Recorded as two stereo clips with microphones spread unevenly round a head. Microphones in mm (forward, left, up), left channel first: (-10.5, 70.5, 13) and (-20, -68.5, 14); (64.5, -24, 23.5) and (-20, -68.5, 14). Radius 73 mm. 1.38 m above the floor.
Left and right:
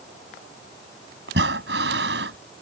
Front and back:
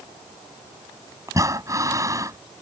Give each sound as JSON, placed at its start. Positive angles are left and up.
{"t": 1.3, "sound": "breathing", "azimuth_deg": -95}